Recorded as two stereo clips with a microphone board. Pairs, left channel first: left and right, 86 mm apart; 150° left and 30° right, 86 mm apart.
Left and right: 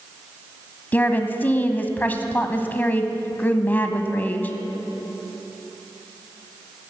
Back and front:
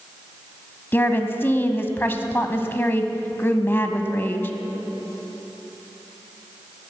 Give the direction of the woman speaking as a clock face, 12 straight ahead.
8 o'clock.